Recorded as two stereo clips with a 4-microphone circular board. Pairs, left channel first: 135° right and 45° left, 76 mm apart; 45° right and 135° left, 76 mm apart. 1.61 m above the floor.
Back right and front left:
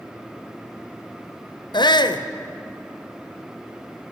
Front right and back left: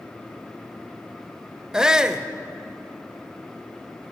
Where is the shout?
145° right, 0.6 m.